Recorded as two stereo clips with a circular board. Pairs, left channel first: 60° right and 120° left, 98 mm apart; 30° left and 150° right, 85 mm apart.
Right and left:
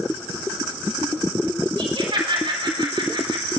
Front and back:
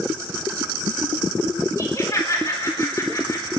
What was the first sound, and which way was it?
Laughter, 85° left.